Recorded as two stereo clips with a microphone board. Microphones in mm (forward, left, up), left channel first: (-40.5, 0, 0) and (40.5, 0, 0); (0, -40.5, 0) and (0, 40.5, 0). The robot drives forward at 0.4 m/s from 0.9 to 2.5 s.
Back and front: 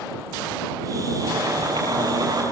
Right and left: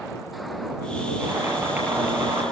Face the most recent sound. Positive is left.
turn(degrees=30)